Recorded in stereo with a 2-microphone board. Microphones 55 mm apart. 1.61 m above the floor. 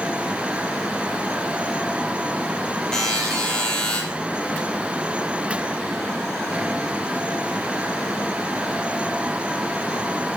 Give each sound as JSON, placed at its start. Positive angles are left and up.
{"t": 2.9, "sound": "a buzzer", "side_deg": 10, "distance_m": 6.5}